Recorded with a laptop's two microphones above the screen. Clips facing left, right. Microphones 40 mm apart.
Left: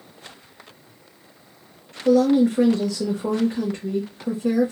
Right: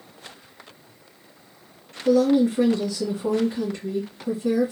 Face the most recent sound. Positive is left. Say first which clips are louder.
# left 2 dB
turn(degrees=50)  # may be behind; listen again after turning